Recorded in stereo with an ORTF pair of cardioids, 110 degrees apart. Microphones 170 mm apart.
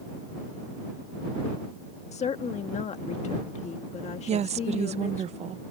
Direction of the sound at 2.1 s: 40° left.